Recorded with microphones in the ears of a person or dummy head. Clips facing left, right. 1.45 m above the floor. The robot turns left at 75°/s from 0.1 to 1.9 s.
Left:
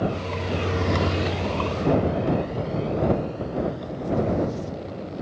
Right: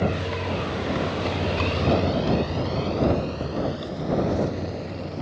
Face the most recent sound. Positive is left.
turn(degrees=-75)  # may be behind; listen again after turning